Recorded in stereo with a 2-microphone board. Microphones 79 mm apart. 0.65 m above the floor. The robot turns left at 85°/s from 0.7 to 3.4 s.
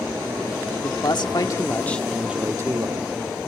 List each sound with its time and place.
0.8 s a man speaking: 110° left, 1.1 m; by 3.1 s 85° right, 1.1 m